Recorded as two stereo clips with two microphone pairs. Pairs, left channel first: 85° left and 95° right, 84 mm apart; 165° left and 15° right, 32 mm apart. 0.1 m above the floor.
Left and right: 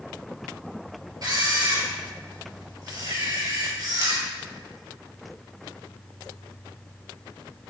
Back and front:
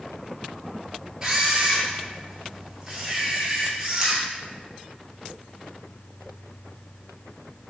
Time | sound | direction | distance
1.2 | a camera shutter | 75° right | 0.8 m